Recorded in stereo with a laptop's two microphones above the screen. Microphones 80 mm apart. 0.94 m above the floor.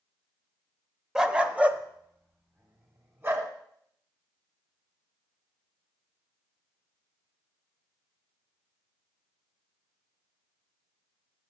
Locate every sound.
1.1 s a dog barking: 5° right (ahead or behind), 0.8 m; by 3.5 s 30° right (ahead or behind), 2 m